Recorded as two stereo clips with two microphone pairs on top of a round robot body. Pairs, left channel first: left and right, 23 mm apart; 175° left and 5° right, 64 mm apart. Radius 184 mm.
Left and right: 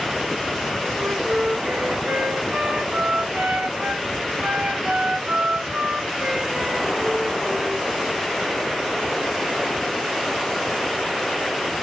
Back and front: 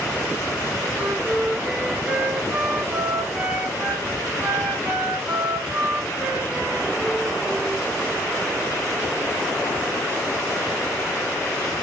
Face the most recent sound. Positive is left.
turn(degrees=-75)